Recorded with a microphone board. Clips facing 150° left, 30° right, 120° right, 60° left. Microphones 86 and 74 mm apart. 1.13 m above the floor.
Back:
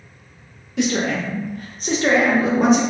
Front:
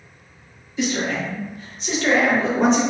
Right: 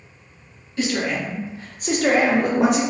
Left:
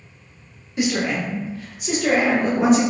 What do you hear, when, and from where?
0.8 s a man speaking: 135° left, 0.9 m; by 2.8 s 120° right, 1.0 m